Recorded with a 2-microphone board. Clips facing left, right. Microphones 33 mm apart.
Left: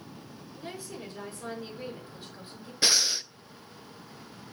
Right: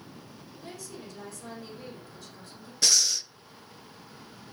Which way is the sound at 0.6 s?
20° left (ahead or behind).